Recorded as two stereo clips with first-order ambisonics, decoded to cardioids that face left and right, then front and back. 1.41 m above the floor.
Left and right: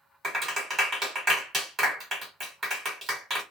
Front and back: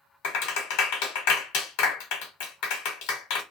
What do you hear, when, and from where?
0.2 s a clap: 20° right, 1.3 m